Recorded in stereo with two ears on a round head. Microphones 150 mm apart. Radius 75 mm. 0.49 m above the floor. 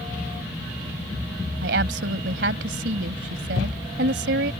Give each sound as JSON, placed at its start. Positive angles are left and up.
{"t": 1.6, "sound": "a woman speaking", "side_deg": -70}